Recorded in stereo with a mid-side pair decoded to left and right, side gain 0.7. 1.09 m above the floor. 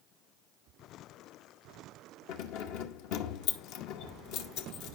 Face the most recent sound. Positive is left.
turn(degrees=70)